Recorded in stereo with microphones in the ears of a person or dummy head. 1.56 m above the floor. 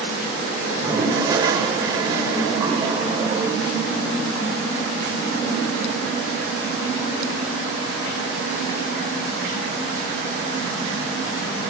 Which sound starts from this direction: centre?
A toilet flushing, at 0.7 s.